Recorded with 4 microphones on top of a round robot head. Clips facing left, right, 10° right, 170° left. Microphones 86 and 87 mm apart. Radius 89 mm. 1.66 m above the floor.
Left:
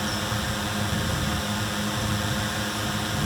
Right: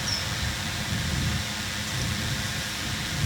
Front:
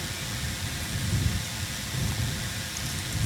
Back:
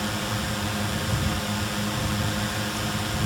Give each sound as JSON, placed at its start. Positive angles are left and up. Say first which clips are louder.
{"t": 0.0, "sound": "a drone", "louder": "left 5 dB, back 9 dB", "azimuth_deg": 135}